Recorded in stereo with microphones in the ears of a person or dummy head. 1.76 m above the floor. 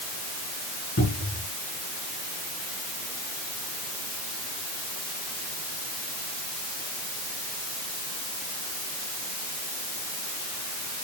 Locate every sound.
1.0 s a cupboard door: 45° left (ahead or behind), 4.5 m